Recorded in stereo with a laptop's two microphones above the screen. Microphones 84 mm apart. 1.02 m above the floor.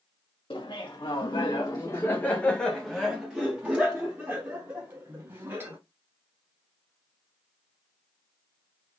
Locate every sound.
0.5 s laughter: 85° left, 1.1 m; by 5.8 s 30° right (ahead or behind), 2.5 m